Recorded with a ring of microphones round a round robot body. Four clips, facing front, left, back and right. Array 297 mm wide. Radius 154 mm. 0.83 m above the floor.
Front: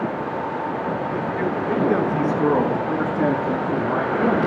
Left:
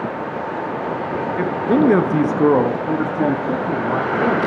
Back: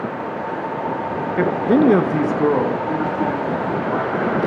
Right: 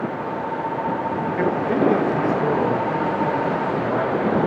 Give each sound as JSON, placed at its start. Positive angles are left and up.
{"t": 1.4, "sound": "a man speaking", "azimuth_deg": 175, "distance_m": 0.8}